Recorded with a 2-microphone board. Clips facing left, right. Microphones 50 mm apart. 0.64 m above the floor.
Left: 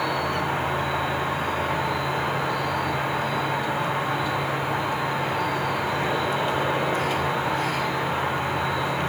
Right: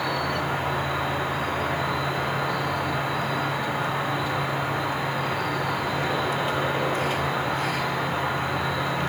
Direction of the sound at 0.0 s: 15° left (ahead or behind).